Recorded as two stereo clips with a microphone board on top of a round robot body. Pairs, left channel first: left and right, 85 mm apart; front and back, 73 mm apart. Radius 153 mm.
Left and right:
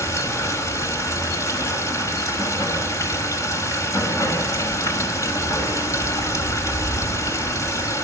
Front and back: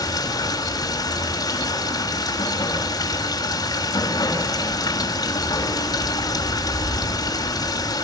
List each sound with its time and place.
0.0 s running water: 35° left, 6.5 m